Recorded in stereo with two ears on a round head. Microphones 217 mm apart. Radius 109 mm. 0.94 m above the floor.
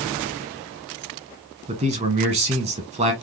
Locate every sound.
1.7 s a man speaking: 25° right (ahead or behind), 1.1 m